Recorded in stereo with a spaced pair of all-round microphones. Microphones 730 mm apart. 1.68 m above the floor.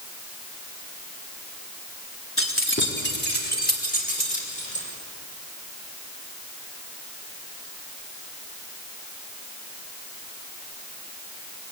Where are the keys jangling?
15° left (ahead or behind), 3 m; by 4.8 s 10° left (ahead or behind), 5.5 m.